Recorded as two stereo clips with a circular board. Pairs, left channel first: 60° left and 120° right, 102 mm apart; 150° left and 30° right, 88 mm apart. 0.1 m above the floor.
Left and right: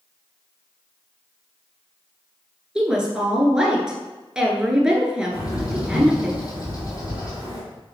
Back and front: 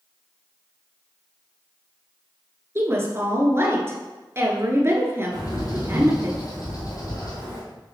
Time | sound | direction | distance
2.8 | a woman speaking | 45° right | 1.3 m
5.3 | a bird | 110° left | 2 m